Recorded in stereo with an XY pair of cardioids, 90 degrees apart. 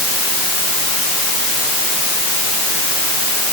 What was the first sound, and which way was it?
Only background noise.